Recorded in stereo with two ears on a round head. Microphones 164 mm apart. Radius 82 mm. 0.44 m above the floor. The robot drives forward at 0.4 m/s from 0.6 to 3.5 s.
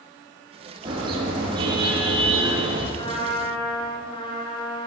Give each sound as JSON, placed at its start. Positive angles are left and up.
{"t": 0.8, "sound": "a car horn", "side_deg": -25, "distance_m": 7.5}
{"t": 3.0, "sound": "a trumpet", "side_deg": 25, "distance_m": 6.5}